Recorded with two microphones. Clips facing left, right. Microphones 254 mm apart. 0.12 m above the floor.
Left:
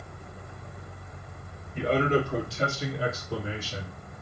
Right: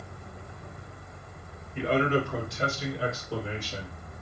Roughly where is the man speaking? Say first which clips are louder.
Left 1 dB; left.